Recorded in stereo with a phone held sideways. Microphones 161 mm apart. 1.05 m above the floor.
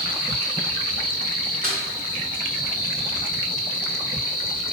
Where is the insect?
70° right (ahead or behind), 1.3 m.